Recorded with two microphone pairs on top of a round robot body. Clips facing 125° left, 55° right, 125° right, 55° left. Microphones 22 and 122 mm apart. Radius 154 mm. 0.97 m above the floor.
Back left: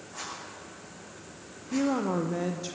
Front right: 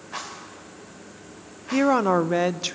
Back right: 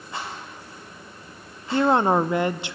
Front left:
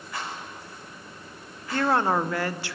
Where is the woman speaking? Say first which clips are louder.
Front right 8 dB, back right 4 dB; 55° right, 0.8 m.